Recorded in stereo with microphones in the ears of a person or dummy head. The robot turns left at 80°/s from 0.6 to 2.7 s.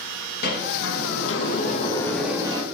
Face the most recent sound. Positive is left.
turn(degrees=-35)